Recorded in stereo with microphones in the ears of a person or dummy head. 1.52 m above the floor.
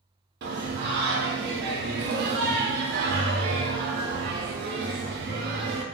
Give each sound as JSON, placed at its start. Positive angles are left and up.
{"t": 0.4, "sound": "singing", "side_deg": -60, "distance_m": 0.6}